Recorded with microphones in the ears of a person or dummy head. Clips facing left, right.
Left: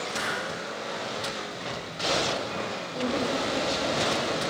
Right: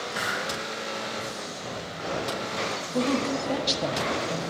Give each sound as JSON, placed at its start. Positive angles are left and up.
{"t": 0.1, "sound": "a hiss", "side_deg": -25, "distance_m": 2.5}
{"t": 2.9, "sound": "a woman speaking", "side_deg": -80, "distance_m": 0.9}